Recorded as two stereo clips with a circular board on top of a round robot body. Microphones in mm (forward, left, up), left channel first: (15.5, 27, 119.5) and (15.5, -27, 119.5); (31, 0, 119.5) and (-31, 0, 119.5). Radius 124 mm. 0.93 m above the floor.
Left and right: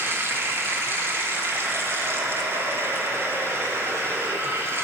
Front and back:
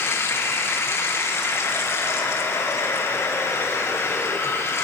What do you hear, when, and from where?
0.0 s running water: 45° right, 2.5 m